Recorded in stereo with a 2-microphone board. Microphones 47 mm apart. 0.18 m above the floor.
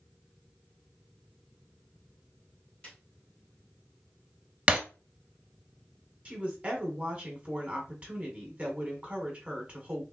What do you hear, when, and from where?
2.8 s a snare drum: 20° left (ahead or behind), 1.8 m
4.7 s breaking glass: 25° right (ahead or behind), 0.6 m
6.2 s a woman speaking: 30° right (ahead or behind), 1.3 m